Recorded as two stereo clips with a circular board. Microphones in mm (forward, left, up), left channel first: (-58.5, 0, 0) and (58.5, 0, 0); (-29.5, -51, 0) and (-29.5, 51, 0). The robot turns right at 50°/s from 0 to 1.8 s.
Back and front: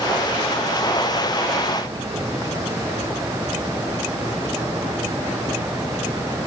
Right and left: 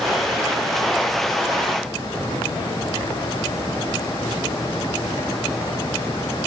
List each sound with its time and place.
Only background noise.